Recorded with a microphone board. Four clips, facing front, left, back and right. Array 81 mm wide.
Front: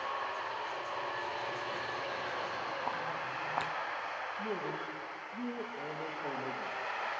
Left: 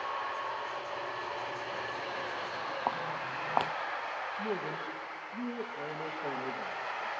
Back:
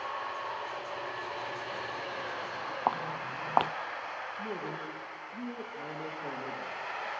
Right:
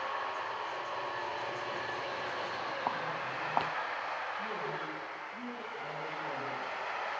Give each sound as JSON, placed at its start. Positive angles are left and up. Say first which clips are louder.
{"t": 2.9, "sound": "footsteps", "louder": "left 2 dB, back 5 dB", "azimuth_deg": 170, "distance_m": 0.6}
{"t": 4.4, "sound": "a man speaking", "louder": "left 2 dB, front 1 dB", "azimuth_deg": 115, "distance_m": 6.0}